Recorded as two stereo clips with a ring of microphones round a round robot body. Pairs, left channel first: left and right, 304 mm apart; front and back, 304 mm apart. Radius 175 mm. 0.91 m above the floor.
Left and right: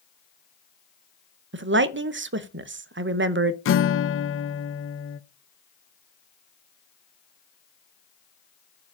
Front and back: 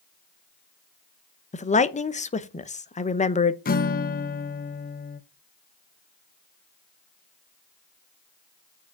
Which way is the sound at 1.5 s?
60° right.